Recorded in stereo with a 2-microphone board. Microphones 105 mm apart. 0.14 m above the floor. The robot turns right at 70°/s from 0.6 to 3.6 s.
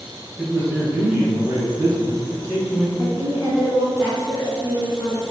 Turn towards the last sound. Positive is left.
turn(degrees=85)